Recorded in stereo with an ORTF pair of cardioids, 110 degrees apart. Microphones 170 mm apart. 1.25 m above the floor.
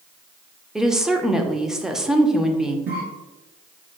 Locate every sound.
0.8 s a woman speaking: 5° right, 0.5 m
2.9 s a cough: 65° right, 1.0 m